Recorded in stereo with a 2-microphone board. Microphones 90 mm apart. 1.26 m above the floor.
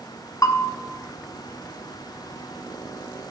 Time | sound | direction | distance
0.4 | a bell | 40° left (ahead or behind) | 0.6 m